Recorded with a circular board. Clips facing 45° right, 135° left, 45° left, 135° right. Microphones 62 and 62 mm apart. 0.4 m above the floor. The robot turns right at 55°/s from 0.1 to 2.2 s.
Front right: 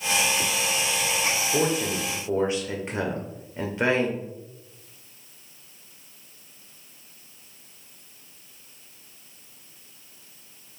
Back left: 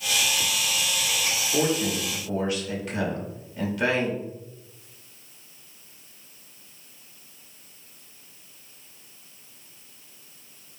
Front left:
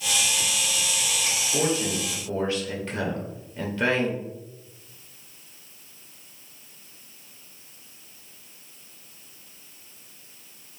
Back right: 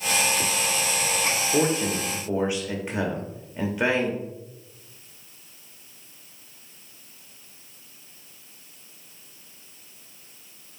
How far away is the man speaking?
About 0.8 m.